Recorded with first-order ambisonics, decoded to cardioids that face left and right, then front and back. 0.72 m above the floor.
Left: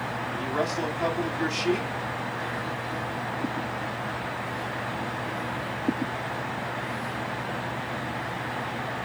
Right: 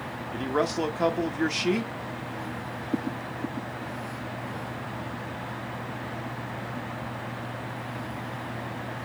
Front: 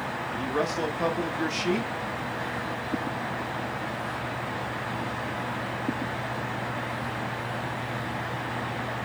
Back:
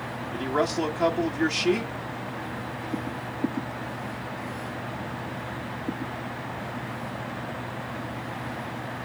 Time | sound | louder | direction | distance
0.3 | a man speaking | right 3 dB, back 3 dB | 110° right | 1.1 m